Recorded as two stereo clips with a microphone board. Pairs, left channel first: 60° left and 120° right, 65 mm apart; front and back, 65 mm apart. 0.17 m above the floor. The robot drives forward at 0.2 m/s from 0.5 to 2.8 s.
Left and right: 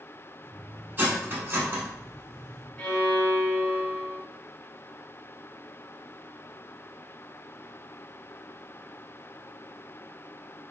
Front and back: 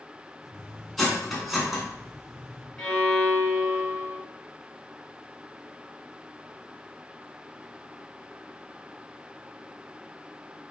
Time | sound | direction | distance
1.0 | cutlery clinking | 85° right | 1.1 m
2.8 | a violin | 60° left | 1.1 m